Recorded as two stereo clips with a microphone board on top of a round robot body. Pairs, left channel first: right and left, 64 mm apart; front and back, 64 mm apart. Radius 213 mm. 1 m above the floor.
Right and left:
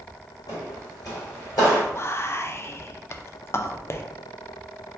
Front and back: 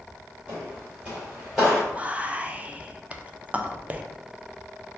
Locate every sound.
0.5 s footsteps: 115° right, 1.9 m; by 1.8 s 90° right, 1.4 m
1.9 s whispering: 120° right, 0.7 m